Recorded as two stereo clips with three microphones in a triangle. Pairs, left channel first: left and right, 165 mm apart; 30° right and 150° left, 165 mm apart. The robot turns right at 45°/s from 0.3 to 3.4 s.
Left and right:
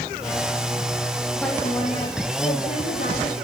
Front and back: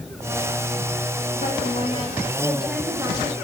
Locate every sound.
1.4 s a woman speaking: 5° left, 9.5 m; by 3.4 s 90° left, 9.5 m